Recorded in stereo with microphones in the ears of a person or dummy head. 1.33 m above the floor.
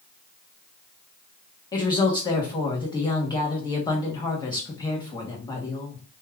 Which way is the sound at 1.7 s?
20° left (ahead or behind).